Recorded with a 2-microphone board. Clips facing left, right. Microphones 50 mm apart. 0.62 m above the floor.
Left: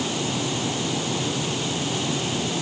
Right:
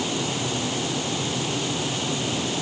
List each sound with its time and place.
Only background noise.